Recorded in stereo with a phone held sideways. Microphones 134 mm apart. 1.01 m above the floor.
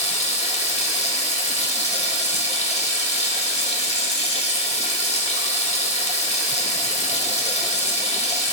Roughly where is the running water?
Left.